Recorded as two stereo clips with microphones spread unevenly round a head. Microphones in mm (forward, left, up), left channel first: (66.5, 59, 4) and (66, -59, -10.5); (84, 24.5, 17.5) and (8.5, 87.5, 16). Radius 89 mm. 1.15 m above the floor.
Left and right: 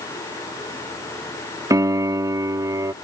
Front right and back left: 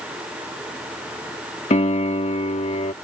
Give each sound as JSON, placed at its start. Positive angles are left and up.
{"t": 1.7, "sound": "a piano", "azimuth_deg": -30}